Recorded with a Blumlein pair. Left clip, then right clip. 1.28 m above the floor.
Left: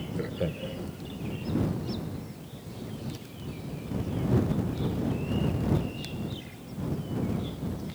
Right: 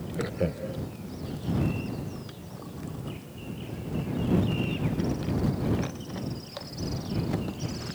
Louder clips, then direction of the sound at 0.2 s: Right 3 dB; 5° right.